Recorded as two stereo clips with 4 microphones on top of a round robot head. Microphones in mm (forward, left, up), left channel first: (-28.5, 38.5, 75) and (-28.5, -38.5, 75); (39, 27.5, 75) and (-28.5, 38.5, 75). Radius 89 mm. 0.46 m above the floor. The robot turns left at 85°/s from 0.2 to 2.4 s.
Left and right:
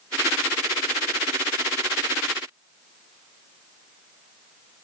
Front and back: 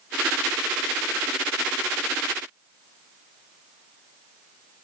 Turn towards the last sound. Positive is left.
No sound to turn to.